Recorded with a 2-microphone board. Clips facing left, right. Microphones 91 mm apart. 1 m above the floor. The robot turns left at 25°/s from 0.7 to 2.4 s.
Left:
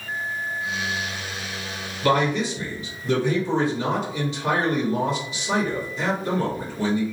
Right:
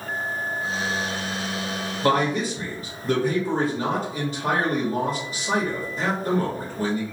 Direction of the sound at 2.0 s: 35° right (ahead or behind).